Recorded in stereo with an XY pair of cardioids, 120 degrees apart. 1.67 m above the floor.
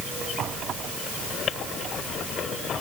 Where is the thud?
I don't hear a thud.